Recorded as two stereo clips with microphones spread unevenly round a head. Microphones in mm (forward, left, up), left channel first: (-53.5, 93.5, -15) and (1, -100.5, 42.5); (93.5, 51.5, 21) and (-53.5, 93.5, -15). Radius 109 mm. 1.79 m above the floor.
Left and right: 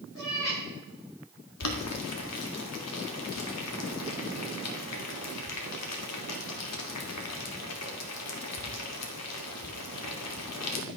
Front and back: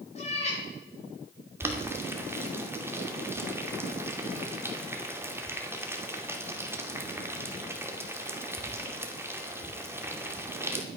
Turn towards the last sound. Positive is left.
turn(degrees=85)